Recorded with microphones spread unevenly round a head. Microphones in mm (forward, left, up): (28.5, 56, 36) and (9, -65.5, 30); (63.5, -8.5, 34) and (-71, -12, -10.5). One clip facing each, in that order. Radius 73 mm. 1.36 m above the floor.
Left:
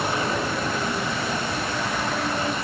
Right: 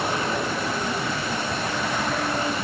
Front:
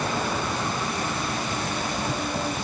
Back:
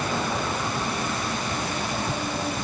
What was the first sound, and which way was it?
Only background noise.